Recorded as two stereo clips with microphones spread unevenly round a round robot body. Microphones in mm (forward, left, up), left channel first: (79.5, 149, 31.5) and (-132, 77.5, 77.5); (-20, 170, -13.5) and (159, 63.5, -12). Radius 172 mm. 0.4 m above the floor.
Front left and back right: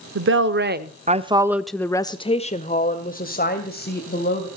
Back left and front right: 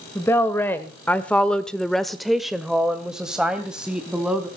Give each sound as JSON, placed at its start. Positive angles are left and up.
{"t": 0.1, "sound": "a woman speaking", "azimuth_deg": -130, "distance_m": 1.3}